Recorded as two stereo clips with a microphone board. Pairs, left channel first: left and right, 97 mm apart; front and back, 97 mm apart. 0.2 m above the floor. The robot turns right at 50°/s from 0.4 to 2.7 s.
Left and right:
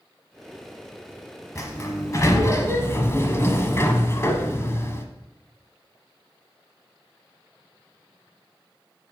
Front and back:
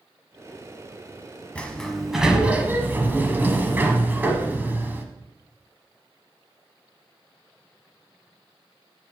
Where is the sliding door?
70° left, 1.1 m; by 5.0 s 125° left, 1.1 m.